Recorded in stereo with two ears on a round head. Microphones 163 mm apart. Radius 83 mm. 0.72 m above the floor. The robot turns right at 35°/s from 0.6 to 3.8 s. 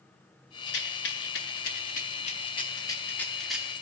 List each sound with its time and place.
0.7 s a rattle: 70° left (ahead or behind), 0.6 m; by 3.7 s 5° right (ahead or behind), 0.6 m